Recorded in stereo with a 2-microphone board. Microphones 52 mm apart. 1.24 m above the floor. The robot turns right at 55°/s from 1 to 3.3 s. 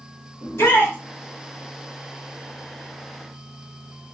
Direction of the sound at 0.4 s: 65° left (ahead or behind).